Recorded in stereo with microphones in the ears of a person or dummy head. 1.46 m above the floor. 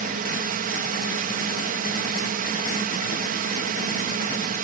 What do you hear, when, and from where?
0.0 s a drone: 50° right (ahead or behind)